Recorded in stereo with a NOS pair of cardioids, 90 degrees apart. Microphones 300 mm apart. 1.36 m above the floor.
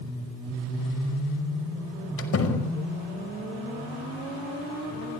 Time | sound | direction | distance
2.2 | a door slam | 45° left | 5.5 m